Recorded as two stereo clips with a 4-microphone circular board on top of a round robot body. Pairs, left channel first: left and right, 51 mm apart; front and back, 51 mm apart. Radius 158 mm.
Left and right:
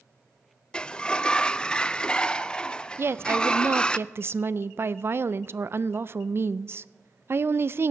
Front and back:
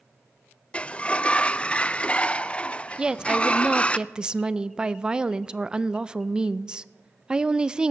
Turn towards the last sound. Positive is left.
turn(degrees=-110)